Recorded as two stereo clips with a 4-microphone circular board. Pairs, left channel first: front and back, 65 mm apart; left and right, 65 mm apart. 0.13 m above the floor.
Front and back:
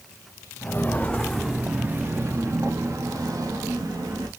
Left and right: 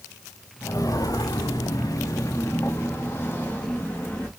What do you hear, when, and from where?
0.6 s footsteps: 60° left, 0.8 m; by 4.3 s 160° left, 1.9 m